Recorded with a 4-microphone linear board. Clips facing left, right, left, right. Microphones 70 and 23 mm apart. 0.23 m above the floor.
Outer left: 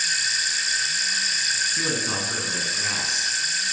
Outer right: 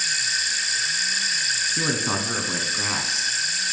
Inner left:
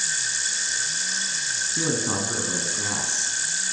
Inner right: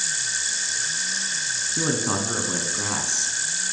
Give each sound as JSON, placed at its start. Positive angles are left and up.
{"t": 1.8, "sound": "a man speaking", "side_deg": -30, "distance_m": 1.9}